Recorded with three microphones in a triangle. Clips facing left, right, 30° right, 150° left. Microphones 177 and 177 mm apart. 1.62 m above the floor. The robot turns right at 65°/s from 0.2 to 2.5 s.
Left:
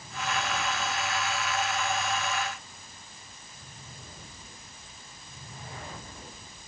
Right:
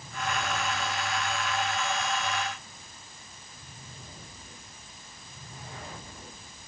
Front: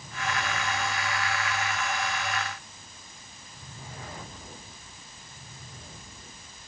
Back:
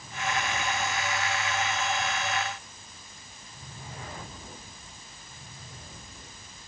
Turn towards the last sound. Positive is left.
No sound to turn to.